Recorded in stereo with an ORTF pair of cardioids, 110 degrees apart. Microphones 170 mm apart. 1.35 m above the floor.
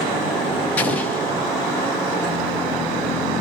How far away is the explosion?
About 1.1 m.